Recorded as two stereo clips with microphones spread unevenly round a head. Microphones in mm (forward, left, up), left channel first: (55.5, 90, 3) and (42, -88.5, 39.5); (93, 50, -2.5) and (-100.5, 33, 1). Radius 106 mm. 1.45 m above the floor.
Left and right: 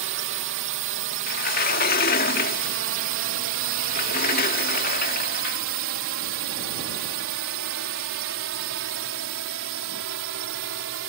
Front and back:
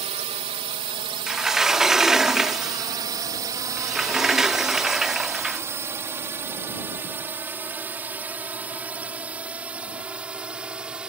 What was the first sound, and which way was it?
A drone, 115° right.